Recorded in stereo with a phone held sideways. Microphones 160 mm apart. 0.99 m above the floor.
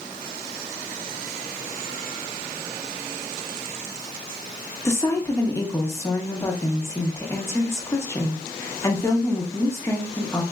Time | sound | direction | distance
4.8 | a woman speaking | 15° left (ahead or behind) | 0.8 m